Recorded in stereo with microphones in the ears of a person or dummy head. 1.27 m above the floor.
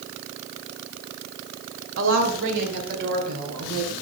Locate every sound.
2.0 s a woman speaking: 70° right (ahead or behind), 2 m; by 3.9 s 50° right (ahead or behind), 4 m